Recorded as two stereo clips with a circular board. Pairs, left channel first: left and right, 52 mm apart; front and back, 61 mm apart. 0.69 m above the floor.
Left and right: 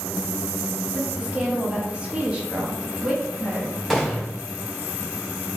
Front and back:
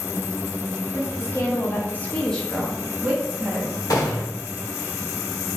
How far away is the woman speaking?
About 1.1 m.